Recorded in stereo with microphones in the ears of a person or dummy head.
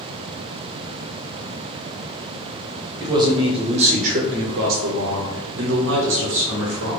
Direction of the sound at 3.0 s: 15° right (ahead or behind).